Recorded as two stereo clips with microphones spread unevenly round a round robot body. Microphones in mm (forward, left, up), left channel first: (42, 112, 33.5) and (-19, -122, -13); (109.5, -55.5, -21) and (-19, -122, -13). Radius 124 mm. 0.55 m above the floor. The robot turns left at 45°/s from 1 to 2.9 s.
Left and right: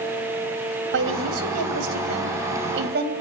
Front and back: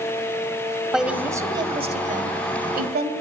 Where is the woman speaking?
65° right, 2.5 m; by 3.1 s 155° right, 2.5 m.